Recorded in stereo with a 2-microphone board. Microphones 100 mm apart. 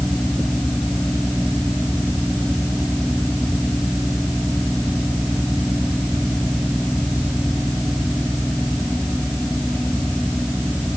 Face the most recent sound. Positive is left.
No sound to turn to.